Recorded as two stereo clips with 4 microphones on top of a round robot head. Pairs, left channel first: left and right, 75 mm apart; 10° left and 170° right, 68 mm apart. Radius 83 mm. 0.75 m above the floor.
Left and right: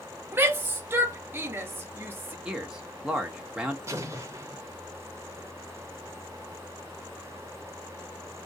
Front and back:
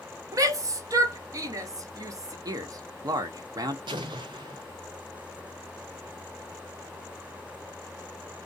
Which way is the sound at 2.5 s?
170° right.